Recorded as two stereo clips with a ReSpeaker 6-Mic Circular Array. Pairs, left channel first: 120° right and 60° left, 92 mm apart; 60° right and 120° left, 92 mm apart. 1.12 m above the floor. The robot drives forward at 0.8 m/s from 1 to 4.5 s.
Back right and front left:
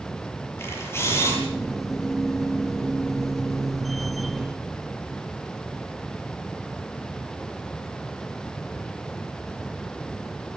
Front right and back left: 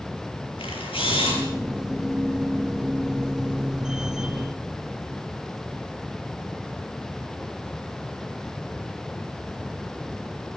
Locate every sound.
0.6 s a camera shutter: 60° right, 9 m